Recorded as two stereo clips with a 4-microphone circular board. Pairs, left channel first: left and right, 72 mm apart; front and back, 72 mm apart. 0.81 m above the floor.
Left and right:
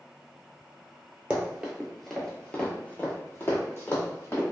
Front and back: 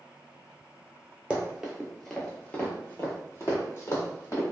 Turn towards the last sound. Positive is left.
turn(degrees=40)